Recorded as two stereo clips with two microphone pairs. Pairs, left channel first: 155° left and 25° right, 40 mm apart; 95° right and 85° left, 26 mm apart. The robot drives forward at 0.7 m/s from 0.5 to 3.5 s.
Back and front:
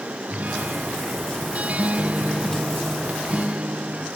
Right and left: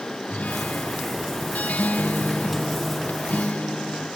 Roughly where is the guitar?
Right.